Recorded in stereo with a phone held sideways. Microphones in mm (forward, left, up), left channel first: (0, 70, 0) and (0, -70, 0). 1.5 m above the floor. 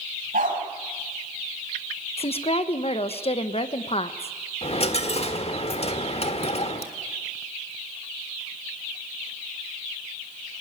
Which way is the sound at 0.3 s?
75° right (ahead or behind).